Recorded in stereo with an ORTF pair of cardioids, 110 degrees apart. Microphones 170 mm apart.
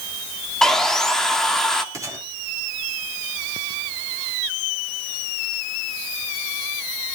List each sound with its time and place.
0.6 s sawing: 5° left, 2.5 m
1.9 s a gunshot: 20° right, 3.5 m